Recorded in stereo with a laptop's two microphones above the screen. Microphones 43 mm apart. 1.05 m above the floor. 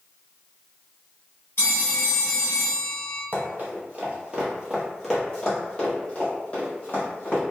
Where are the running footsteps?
40° right (ahead or behind), 1.4 m; by 7.4 s 35° left (ahead or behind), 2.5 m.